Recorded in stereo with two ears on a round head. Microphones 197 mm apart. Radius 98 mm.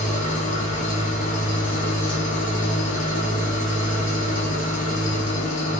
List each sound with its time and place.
0.0 s an engine running: 35° left (ahead or behind), 2.0 m
2.0 s a whoosh: 25° left (ahead or behind), 2.5 m